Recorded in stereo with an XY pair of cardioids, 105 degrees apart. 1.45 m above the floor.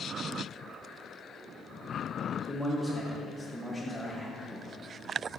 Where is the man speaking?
Straight ahead, 1.4 m.